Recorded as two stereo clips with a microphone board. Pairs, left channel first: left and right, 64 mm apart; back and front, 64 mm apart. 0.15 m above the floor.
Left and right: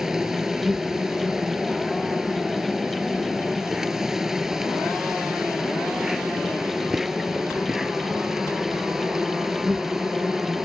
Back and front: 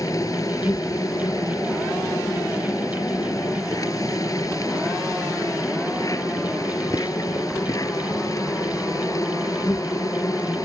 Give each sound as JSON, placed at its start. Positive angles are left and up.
{"t": 0.0, "sound": "an insect", "azimuth_deg": -170}